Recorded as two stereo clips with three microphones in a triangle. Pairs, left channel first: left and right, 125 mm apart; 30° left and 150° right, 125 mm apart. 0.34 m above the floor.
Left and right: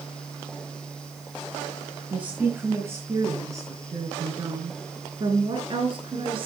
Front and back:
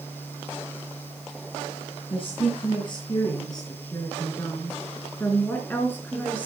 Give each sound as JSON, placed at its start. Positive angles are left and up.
{"t": 2.1, "sound": "a woman speaking", "azimuth_deg": -15, "distance_m": 3.5}